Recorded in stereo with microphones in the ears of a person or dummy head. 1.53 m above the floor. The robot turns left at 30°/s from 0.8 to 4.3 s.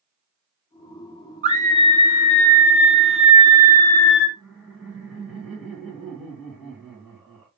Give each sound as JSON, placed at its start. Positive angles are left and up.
{"t": 1.4, "sound": "a scream", "azimuth_deg": -150, "distance_m": 1.1}
{"t": 4.4, "sound": "laughter", "side_deg": -5, "distance_m": 1.8}